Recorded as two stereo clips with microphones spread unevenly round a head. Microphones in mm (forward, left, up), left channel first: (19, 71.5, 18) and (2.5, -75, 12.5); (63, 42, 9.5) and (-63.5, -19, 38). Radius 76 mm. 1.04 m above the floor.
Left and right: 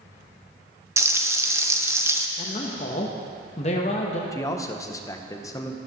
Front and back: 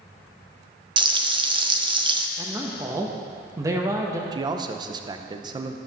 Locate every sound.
1.0 s frying: 135° right, 0.7 m
2.4 s a man speaking: 135° left, 0.9 m
4.3 s a man speaking: 145° left, 0.8 m